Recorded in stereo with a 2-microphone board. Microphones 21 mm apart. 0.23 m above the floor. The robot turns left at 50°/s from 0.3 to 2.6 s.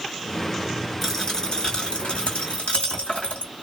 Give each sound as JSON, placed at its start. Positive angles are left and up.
{"t": 1.0, "sound": "a dropped coin", "azimuth_deg": 165, "distance_m": 1.6}